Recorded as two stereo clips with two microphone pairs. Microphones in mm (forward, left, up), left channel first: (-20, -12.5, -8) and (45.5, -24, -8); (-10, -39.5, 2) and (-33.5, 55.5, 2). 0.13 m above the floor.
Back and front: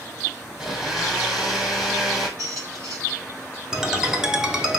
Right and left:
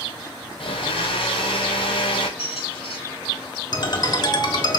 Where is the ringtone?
85° right, 0.6 m.